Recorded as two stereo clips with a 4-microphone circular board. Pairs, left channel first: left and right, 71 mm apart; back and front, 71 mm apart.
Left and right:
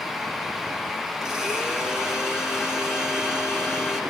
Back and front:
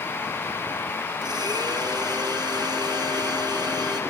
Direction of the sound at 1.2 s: 10° right.